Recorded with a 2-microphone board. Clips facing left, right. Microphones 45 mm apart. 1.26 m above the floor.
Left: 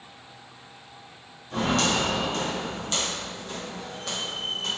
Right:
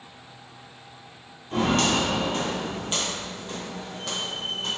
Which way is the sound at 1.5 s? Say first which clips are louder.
Right 2 dB; 40° right (ahead or behind).